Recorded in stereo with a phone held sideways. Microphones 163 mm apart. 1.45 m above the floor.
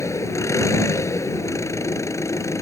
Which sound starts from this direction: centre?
An engine running, at 0.0 s.